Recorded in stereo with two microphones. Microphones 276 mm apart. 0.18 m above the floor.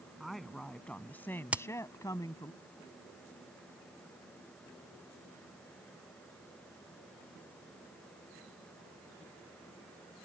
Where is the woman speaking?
Centre (ahead or behind); by 2.5 s 15° left (ahead or behind).